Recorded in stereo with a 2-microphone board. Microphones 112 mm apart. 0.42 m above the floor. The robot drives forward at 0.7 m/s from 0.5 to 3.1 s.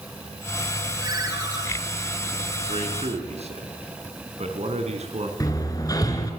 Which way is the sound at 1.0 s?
35° right (ahead or behind).